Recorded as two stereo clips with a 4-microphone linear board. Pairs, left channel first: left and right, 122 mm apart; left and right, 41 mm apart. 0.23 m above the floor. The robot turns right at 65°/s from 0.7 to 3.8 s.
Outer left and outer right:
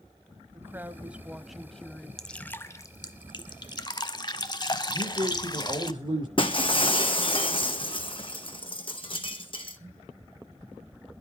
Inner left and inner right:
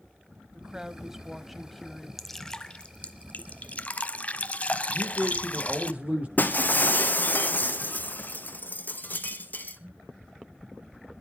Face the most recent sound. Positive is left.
turn(degrees=45)  # may be behind; listen again after turning